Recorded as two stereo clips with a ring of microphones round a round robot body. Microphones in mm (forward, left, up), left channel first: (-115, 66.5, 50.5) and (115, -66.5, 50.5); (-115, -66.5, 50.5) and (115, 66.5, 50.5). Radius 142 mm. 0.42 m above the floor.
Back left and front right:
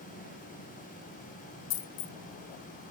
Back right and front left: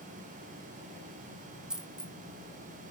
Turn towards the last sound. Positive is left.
turn(degrees=115)